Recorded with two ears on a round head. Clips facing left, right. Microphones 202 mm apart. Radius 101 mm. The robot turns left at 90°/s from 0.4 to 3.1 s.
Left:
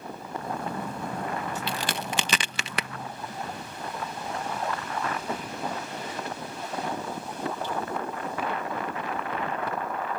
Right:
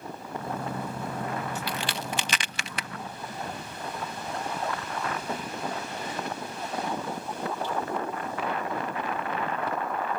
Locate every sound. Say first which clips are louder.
1.7 s a crack: left 1 dB; 20° left (ahead or behind); by 2.9 s 45° left (ahead or behind)